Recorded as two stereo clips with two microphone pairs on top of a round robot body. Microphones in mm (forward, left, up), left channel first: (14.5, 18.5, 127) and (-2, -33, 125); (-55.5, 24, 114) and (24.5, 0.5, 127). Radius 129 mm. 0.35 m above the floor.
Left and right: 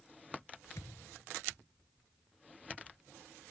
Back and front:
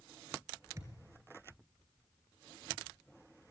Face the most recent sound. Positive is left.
turn(degrees=40)